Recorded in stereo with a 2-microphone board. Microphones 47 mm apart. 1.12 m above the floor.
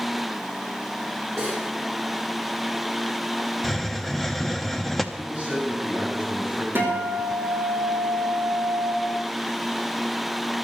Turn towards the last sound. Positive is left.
turn(degrees=-50)  # may be behind; listen again after turning